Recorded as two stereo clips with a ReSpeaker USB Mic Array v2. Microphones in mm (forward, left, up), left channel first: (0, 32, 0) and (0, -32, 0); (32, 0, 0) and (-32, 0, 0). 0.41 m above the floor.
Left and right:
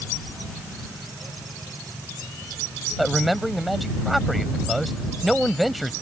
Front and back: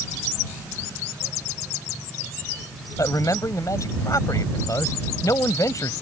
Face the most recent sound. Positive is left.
turn(degrees=-5)